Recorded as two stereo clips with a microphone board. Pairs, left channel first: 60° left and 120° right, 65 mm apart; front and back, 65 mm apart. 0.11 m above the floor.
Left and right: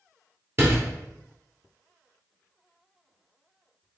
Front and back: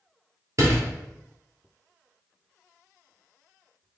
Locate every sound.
0.6 s a door slam: 160° right, 1.4 m